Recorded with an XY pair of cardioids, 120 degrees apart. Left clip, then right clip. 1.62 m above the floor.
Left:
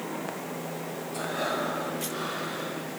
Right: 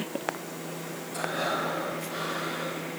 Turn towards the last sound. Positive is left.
turn(degrees=-15)